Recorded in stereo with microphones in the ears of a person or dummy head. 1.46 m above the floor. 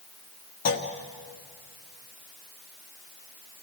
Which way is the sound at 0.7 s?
50° left (ahead or behind).